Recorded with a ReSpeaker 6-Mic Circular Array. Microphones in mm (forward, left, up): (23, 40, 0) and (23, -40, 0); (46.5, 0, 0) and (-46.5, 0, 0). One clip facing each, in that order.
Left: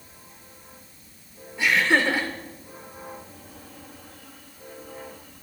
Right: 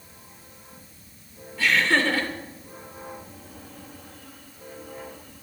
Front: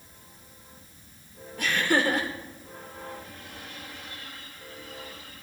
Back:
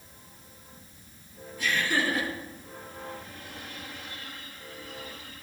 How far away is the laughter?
About 2.5 m.